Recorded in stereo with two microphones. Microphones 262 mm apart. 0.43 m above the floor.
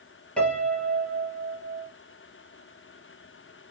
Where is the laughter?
No laughter in this recording.